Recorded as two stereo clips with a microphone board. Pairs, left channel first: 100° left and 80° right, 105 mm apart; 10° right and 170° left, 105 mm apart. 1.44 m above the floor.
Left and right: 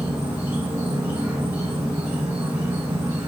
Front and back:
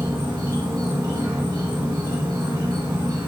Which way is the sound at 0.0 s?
145° right.